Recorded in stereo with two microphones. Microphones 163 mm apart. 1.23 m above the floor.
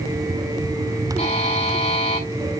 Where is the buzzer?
40° left (ahead or behind), 6 m.